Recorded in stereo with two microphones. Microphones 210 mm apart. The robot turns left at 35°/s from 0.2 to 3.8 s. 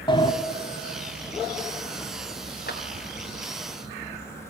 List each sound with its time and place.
0.1 s a sliding door: 20° left (ahead or behind), 1.1 m; by 0.3 s 25° left (ahead or behind), 1.1 m
2.7 s a clap: 50° left (ahead or behind), 2 m; by 2.8 s 45° left (ahead or behind), 2 m